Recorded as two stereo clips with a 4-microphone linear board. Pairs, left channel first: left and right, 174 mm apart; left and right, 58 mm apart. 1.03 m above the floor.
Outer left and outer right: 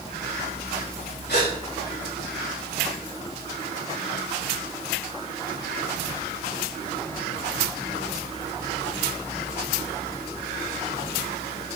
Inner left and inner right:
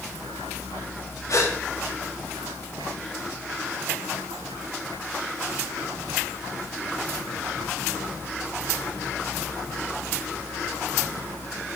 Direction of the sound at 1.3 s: 70° left (ahead or behind).